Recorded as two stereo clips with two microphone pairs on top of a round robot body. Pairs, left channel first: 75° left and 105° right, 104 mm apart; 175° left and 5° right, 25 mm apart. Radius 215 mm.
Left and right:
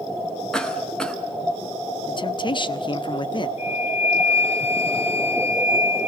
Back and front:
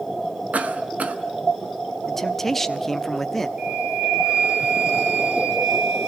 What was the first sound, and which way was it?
A cough, 5° right.